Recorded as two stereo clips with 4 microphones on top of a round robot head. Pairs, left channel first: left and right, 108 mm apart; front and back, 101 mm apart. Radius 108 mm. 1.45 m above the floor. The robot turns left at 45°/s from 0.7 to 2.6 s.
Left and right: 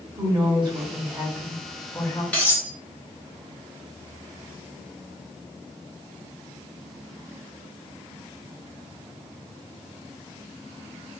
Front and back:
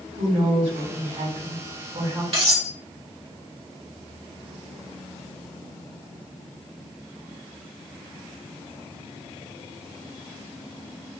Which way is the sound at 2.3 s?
165° left.